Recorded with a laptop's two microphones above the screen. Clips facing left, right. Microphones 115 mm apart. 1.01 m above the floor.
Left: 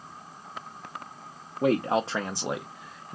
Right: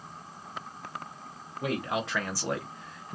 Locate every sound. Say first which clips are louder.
1.6 s a man speaking: left 7 dB; 40° left (ahead or behind), 0.6 m; by 3.2 s 5° right (ahead or behind), 0.7 m